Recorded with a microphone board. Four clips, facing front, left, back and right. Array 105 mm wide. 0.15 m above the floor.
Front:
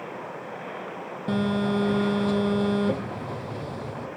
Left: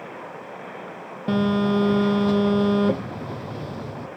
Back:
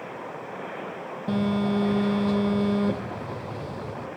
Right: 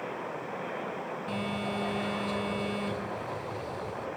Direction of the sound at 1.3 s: 85° left.